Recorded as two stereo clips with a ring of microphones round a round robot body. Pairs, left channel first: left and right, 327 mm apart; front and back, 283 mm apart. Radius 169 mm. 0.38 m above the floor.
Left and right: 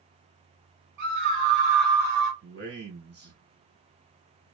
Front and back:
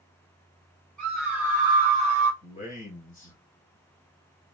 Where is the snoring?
I don't hear snoring.